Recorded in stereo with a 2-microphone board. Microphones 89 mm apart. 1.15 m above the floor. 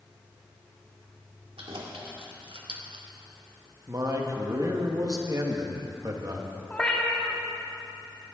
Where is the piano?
I don't hear a piano.